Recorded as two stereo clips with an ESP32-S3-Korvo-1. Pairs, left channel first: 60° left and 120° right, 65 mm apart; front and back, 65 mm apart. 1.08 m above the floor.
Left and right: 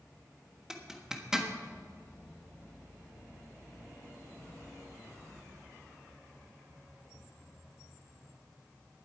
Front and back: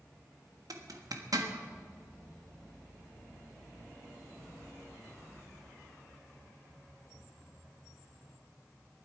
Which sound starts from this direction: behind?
A zipper, at 0.7 s.